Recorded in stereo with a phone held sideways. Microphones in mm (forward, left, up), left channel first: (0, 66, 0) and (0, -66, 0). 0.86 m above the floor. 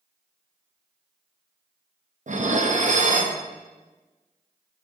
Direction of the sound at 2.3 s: 65° right (ahead or behind).